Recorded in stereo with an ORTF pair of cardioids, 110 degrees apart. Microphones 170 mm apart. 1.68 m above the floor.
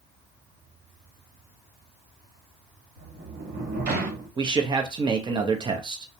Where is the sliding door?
65° right, 1.0 m.